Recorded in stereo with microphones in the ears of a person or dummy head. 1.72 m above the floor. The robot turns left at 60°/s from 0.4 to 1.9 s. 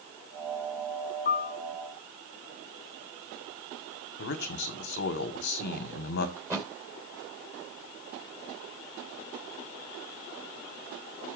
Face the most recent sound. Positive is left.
turn(degrees=-15)  # may be behind; listen again after turning